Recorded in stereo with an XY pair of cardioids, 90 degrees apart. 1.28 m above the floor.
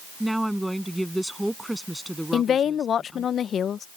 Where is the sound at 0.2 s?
5° right.